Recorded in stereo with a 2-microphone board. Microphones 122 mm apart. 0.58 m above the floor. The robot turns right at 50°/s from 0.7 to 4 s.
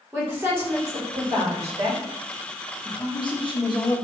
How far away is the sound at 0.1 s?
About 1.4 m.